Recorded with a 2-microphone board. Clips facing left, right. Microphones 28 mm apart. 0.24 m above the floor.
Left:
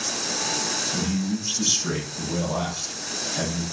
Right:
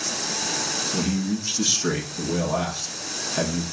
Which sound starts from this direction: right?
A man speaking, at 0.9 s.